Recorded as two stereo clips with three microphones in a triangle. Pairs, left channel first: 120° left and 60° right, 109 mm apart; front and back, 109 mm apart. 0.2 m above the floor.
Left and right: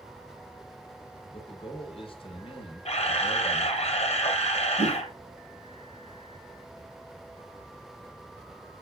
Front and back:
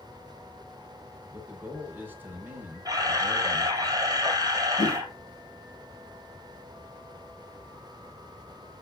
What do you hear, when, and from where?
1.3 s a man speaking: 110° left, 2.5 m
2.9 s a camera shutter: 125° left, 2 m
4.8 s a whoosh: 35° right, 4.5 m